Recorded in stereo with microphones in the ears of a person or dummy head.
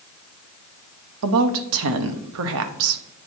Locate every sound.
1.2 s a woman speaking: 75° right (ahead or behind), 0.8 m